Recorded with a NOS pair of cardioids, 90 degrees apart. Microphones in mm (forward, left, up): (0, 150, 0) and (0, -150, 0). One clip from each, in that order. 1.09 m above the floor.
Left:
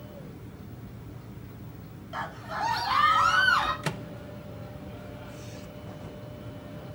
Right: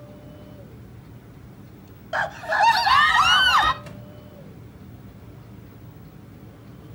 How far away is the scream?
About 1.0 m.